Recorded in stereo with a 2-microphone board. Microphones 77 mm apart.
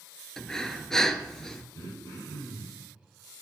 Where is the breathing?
10° left (ahead or behind), 0.5 m.